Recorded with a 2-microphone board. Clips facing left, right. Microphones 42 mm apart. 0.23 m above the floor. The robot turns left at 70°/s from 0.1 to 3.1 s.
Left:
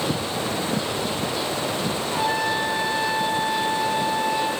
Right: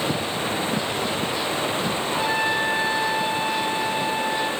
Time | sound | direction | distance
2.1 | a trumpet | 5° left | 1.9 m